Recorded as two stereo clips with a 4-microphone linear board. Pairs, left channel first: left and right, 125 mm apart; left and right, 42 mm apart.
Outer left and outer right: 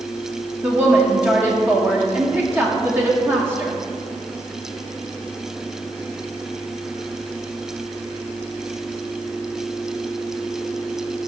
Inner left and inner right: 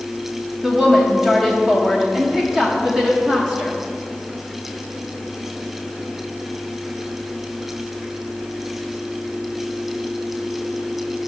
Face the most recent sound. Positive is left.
turn(degrees=-15)  # may be behind; listen again after turning